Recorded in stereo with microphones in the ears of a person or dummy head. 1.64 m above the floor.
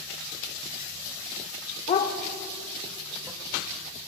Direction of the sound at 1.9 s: 30° left (ahead or behind).